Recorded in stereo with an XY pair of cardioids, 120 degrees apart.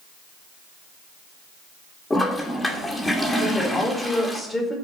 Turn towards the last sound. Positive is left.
turn(degrees=15)